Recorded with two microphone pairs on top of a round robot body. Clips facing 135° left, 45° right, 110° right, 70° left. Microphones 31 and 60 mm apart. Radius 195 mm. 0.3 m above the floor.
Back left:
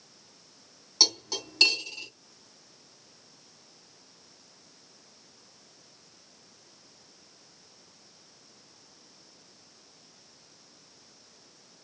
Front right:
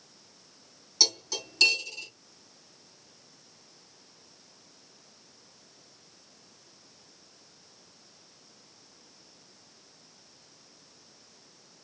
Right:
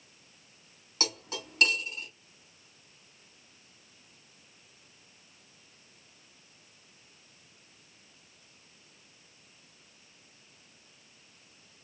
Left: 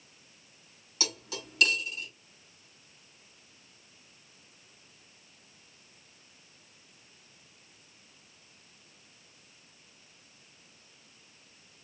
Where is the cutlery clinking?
155° right, 1.7 m.